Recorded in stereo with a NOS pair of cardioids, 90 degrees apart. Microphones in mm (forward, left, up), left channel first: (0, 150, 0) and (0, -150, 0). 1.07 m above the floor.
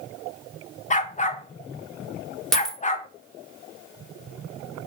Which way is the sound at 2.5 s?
Straight ahead.